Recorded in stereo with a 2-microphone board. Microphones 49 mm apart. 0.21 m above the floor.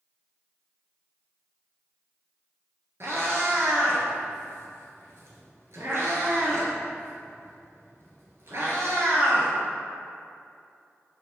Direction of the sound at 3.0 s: 65° right (ahead or behind).